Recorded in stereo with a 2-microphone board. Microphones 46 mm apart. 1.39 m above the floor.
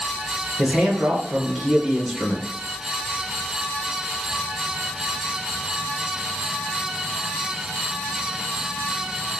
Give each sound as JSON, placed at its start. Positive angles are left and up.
{"t": 0.6, "sound": "a man speaking", "side_deg": -15, "distance_m": 0.5}